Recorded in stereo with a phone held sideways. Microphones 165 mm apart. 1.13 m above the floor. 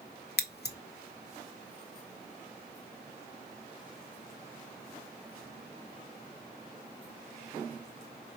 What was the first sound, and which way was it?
Scissors, 85° left.